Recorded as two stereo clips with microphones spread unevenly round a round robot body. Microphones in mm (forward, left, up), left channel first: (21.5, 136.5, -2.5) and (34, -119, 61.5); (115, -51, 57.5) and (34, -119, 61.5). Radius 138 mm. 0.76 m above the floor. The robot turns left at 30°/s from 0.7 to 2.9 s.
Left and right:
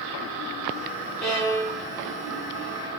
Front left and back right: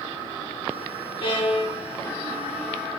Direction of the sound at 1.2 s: 10° left.